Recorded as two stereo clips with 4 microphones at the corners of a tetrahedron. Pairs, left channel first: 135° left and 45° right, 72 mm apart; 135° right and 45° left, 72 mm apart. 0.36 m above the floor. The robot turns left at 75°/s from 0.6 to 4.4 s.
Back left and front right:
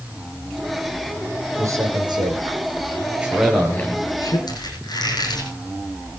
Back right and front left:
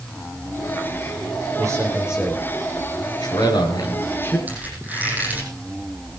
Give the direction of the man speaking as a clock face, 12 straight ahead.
12 o'clock.